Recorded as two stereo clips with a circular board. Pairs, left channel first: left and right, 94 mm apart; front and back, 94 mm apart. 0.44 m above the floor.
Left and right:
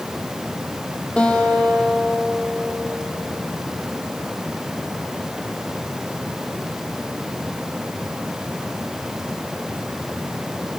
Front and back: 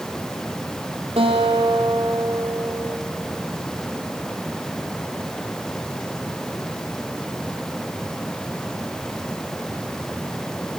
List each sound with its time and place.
1.2 s a guitar: 170° left, 2.5 m